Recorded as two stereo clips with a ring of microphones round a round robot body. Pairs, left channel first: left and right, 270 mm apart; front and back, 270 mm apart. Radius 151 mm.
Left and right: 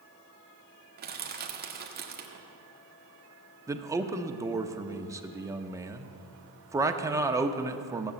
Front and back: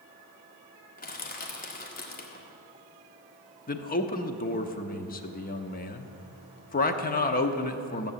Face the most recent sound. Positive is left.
turn(degrees=-20)